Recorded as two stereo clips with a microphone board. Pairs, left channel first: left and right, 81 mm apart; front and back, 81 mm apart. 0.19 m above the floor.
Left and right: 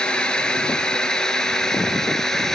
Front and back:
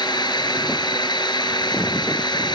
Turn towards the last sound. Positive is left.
turn(degrees=5)